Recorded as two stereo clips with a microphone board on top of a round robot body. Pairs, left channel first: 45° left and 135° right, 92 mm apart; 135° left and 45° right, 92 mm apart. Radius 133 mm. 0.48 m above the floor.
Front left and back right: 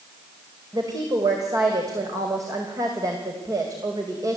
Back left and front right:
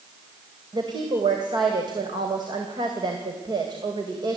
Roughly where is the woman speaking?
Right.